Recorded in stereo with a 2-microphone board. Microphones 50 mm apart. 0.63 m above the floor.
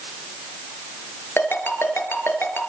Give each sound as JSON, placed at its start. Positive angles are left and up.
{"t": 1.4, "sound": "a ringtone", "side_deg": 55, "distance_m": 5.0}